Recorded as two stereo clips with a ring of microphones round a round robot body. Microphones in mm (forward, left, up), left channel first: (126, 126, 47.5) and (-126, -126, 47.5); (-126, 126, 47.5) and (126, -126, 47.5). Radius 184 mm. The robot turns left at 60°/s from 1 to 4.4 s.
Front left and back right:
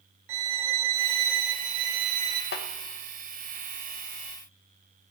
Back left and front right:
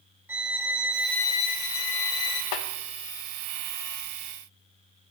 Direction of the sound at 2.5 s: 105° left.